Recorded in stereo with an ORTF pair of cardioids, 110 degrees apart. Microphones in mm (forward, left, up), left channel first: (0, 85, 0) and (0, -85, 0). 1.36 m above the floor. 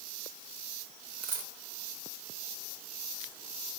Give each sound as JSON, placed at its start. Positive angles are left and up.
{"t": 1.2, "sound": "a dropped coin", "azimuth_deg": -60, "distance_m": 2.5}